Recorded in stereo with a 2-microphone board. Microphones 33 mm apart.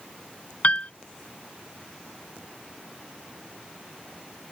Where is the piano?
45° left (ahead or behind).